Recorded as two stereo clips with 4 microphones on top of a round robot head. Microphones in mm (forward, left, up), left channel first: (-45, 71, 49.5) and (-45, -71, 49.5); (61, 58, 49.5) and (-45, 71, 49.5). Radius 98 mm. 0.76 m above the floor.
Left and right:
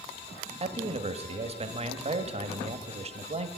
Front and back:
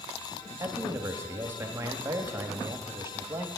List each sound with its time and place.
0.6 s a man speaking: 125° right, 1.3 m